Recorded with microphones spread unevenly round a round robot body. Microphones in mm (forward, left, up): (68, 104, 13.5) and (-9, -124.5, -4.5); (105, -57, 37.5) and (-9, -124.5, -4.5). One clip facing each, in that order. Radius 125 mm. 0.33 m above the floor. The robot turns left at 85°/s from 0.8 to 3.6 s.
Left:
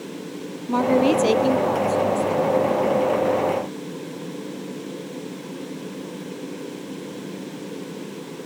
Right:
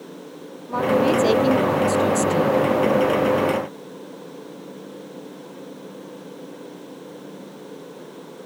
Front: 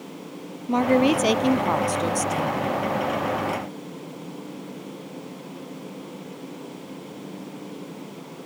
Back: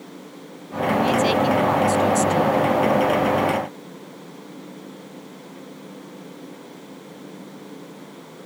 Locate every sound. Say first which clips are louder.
0.7 s a woman speaking: left 1 dB, front 2 dB; 35° left; by 2.7 s 130° right